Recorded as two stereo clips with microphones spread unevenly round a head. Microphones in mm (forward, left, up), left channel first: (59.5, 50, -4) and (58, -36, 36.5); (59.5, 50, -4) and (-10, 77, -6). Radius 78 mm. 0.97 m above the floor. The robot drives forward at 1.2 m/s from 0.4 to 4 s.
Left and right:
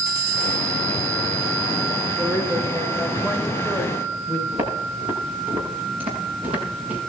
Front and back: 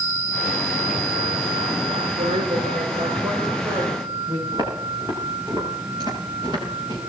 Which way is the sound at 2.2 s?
165° right.